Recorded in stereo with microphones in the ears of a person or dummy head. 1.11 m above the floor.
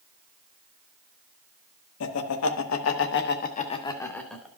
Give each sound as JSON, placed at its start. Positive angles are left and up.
{"t": 2.0, "sound": "laughter", "side_deg": 85, "distance_m": 1.3}